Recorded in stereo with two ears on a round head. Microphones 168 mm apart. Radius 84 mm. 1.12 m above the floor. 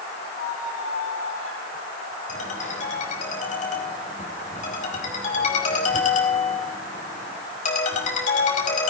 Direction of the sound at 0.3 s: 80° left.